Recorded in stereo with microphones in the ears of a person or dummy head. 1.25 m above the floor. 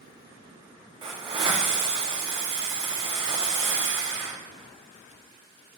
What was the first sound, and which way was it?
A hiss, 25° right (ahead or behind).